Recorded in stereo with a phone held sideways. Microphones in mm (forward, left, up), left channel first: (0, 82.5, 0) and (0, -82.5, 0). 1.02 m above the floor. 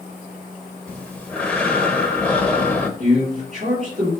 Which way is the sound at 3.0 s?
50° right (ahead or behind).